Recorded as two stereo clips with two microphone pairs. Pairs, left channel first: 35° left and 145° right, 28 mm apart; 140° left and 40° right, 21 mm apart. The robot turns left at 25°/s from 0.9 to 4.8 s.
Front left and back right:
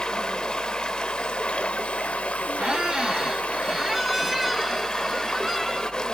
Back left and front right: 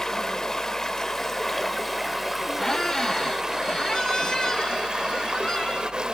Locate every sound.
0.0 s running water: 80° left, 0.8 m; by 6.1 s 20° right, 0.8 m
2.6 s a squeak: 175° left, 0.7 m; by 5.9 s 120° left, 0.7 m